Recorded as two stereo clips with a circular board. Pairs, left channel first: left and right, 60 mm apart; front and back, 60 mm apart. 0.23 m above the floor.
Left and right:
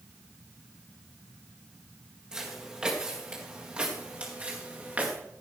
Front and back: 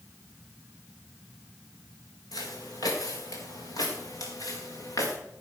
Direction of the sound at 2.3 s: 15° right.